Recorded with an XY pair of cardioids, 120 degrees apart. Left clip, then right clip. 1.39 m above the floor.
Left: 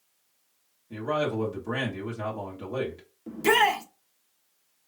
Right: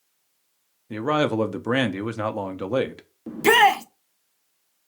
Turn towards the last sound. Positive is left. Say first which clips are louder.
# right 6 dB
turn(degrees=-35)